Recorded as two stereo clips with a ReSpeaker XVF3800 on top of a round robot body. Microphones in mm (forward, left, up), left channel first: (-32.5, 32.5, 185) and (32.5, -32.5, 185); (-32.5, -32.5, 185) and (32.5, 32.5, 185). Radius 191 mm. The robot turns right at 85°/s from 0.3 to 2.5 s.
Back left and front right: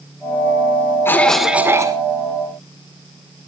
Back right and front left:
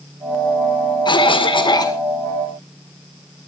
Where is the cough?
165° right, 2 m; by 2.0 s 85° right, 2 m.